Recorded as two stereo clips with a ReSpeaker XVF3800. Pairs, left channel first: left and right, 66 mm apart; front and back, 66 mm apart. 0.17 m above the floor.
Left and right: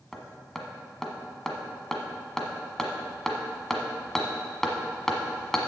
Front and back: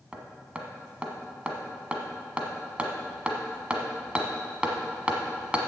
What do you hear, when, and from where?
0.1 s hammering: 160° left, 1.2 m